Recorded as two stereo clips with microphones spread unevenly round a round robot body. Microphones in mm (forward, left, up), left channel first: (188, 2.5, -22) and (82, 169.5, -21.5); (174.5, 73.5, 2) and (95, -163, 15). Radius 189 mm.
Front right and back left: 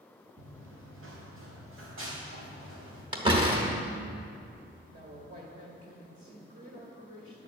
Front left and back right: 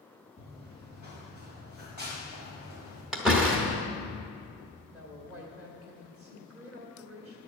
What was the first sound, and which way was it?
Running footsteps, 115° left.